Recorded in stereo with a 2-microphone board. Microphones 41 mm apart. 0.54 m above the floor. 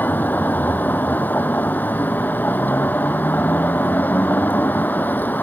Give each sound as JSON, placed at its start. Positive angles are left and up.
{"t": 0.0, "sound": "a vehicle", "side_deg": 45}